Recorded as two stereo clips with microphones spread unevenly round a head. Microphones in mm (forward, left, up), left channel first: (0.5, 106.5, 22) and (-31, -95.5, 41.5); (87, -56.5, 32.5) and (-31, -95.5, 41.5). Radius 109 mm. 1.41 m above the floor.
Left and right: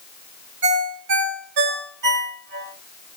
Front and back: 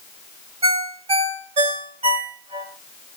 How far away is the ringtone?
About 2.5 m.